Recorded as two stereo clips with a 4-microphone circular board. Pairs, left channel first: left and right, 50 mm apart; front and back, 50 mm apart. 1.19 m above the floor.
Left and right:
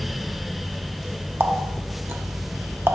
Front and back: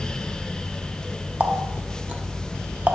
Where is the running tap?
125° right, 0.7 m.